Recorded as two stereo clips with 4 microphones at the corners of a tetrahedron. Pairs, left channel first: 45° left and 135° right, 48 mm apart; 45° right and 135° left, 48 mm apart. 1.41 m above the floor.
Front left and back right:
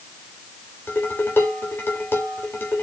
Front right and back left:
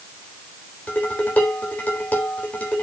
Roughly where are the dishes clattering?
Ahead.